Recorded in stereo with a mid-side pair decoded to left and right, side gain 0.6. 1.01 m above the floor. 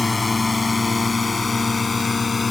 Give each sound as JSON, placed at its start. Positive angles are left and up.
{"t": 0.0, "sound": "a drone", "azimuth_deg": 20}